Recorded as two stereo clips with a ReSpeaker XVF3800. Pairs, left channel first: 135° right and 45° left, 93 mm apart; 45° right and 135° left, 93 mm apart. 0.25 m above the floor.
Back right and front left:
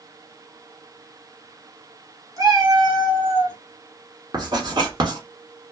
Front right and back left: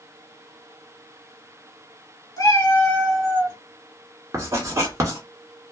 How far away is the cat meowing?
About 1.0 m.